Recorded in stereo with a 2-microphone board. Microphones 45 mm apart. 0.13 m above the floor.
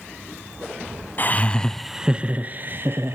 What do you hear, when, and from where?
1.2 s laughter: 40° left (ahead or behind), 1.4 m; by 3.2 s 50° right (ahead or behind), 2.5 m